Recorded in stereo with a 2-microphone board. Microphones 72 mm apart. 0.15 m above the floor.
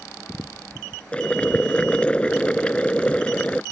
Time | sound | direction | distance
1.1 | boiling | 15° left (ahead or behind) | ?